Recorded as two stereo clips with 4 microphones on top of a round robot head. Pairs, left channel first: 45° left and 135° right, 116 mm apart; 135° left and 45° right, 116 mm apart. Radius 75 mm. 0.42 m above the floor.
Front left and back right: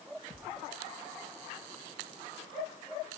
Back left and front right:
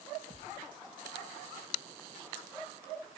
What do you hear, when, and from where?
0.3 s a thud: straight ahead, 4 m